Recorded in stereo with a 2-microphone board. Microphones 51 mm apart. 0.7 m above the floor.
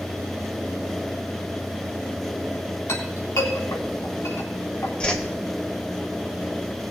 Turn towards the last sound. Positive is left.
turn(degrees=20)  # may be behind; listen again after turning